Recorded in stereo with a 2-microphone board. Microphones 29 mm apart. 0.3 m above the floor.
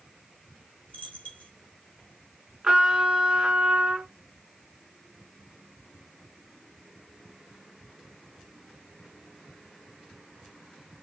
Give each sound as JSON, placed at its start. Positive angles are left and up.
{"t": 0.9, "sound": "a dropped coin", "side_deg": 55, "distance_m": 2.0}
{"t": 2.6, "sound": "a trumpet", "side_deg": -30, "distance_m": 1.7}